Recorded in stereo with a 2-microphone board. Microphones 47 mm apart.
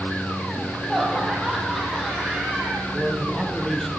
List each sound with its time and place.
0.6 s laughter: centre (ahead or behind), 6.5 m; by 2.8 s 5° right (ahead or behind), 9 m
2.9 s a man speaking: 5° left (ahead or behind), 6 m